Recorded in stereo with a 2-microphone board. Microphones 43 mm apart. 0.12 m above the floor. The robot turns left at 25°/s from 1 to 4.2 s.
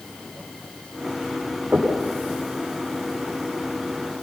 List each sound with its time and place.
1.7 s knocking: 50° right (ahead or behind), 8 m; by 1.9 s 45° right (ahead or behind), 8 m